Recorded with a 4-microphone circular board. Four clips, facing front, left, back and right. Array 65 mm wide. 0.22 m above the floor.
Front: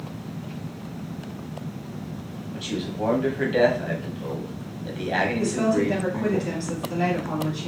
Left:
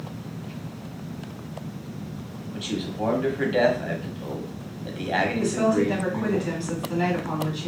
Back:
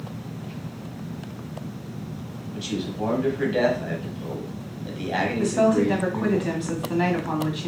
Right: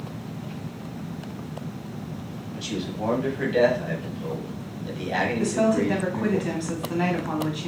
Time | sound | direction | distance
2.5 | a man speaking | 55° left | 1.2 m
5.4 | a woman speaking | 155° right | 1.4 m